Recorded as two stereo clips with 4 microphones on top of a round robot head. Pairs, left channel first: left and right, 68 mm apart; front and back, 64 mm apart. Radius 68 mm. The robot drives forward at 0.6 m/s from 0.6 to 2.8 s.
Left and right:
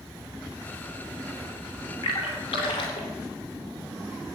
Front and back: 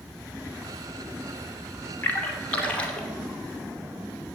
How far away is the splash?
About 2.5 m.